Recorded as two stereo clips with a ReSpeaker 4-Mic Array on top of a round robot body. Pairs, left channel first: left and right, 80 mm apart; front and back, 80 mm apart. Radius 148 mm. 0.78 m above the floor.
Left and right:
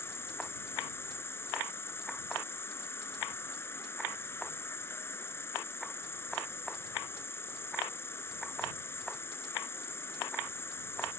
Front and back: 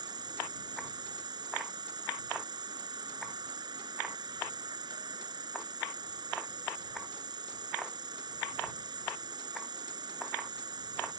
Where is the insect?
150° left.